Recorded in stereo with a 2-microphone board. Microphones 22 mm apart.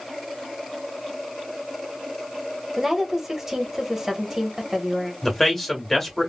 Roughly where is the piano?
I don't hear a piano.